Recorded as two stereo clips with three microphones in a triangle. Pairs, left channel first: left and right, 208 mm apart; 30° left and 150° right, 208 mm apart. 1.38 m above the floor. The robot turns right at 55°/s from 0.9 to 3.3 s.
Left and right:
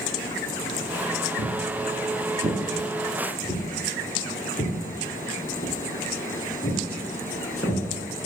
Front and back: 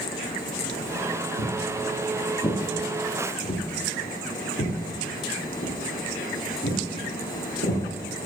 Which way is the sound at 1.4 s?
100° right.